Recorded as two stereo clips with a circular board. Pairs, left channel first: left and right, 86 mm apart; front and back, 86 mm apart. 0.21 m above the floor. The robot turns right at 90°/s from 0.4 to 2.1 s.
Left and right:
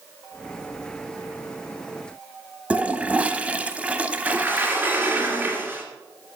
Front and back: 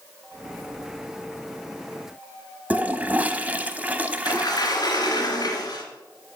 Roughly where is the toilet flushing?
Behind right.